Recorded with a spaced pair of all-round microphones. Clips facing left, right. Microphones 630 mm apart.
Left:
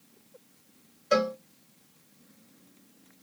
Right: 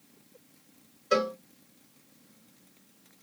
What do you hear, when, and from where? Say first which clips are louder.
1.1 s a cowbell: left 1 dB; 15° left (ahead or behind), 0.9 m